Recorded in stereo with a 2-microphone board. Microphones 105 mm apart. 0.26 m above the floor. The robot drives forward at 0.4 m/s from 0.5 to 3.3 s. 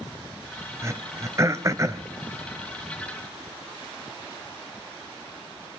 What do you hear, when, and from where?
0.8 s throat clearing: 30° right (ahead or behind), 1.1 m